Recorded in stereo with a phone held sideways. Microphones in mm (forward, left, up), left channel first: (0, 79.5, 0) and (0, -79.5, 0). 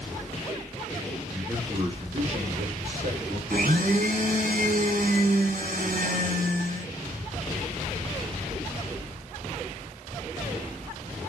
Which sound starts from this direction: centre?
A man speaking, at 1.3 s.